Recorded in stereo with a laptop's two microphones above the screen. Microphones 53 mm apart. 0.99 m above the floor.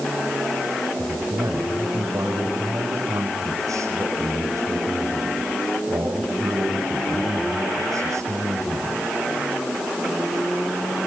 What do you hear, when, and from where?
1.0 s a man speaking: 80° right, 6 m